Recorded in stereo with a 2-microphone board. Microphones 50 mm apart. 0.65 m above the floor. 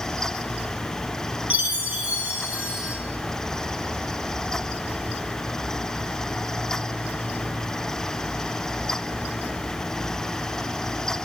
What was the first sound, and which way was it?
A chime, 30° right (ahead or behind).